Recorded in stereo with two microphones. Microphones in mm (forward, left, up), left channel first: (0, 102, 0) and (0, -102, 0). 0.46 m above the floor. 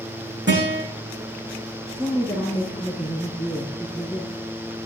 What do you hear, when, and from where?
0.5 s a guitar: 60° right (ahead or behind), 10 m
1.9 s a woman speaking: 20° right (ahead or behind), 4 m